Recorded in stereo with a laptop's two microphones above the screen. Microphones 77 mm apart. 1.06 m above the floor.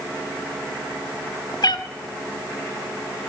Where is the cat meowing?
65° left (ahead or behind), 0.7 m.